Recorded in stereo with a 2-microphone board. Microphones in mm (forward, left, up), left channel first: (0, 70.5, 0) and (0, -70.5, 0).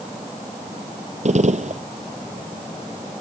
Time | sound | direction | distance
1.2 | a gunshot | 55° right (ahead or behind) | ?